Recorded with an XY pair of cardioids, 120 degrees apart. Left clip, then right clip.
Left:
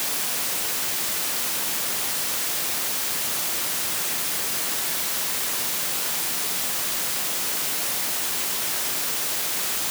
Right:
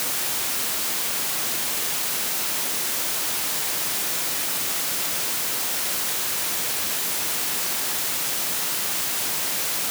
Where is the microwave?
I don't hear a microwave.